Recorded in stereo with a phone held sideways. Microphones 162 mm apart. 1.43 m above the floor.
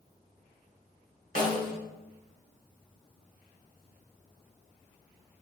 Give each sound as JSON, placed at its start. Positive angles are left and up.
{"t": 1.4, "sound": "a snare drum", "side_deg": -60, "distance_m": 1.1}